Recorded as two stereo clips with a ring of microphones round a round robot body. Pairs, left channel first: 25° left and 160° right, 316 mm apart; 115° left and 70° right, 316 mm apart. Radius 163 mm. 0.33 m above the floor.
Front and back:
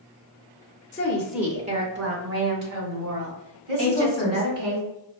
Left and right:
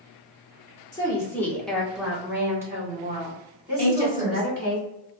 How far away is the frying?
I don't hear frying.